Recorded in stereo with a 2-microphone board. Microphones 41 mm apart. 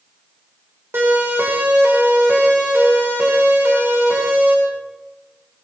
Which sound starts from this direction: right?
A siren, at 0.9 s.